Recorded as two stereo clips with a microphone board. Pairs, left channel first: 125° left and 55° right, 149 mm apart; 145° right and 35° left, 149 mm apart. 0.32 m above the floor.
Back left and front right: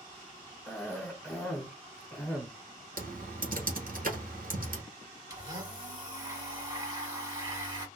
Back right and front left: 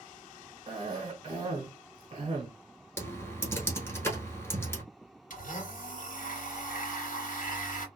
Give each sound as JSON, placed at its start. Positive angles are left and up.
{"t": 0.7, "sound": "a cough", "azimuth_deg": 55, "distance_m": 1.0}
{"t": 3.0, "sound": "typing on a keyboard", "azimuth_deg": -70, "distance_m": 1.2}
{"t": 5.3, "sound": "a blender", "azimuth_deg": -120, "distance_m": 1.9}